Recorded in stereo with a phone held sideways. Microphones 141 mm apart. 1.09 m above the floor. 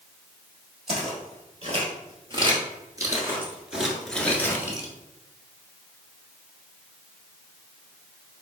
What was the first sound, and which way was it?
Footsteps, 50° right (ahead or behind).